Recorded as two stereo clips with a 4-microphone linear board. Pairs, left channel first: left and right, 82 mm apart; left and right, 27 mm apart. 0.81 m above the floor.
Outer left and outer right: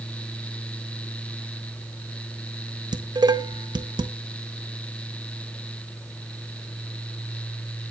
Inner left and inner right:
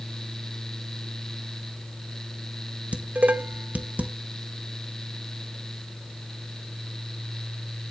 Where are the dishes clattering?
70° right (ahead or behind), 0.6 m.